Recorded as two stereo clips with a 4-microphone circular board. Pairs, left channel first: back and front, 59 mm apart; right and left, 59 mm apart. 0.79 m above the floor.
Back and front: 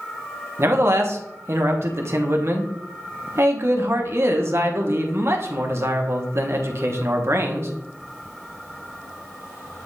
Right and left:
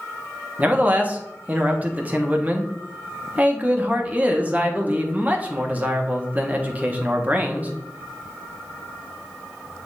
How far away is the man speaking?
About 1.1 m.